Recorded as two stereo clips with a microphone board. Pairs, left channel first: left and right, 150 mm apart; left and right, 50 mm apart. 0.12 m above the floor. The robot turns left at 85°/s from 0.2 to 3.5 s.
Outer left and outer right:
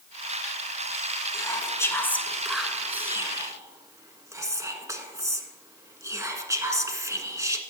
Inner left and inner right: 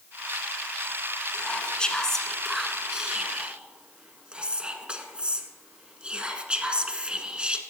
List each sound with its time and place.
1.3 s whispering: 20° left (ahead or behind), 1.4 m; by 7.6 s 20° right (ahead or behind), 1.4 m